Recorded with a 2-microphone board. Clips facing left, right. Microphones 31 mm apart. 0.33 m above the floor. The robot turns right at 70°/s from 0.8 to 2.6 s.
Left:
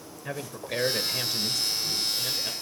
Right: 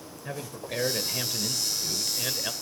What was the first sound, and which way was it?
A man speaking, 15° left (ahead or behind).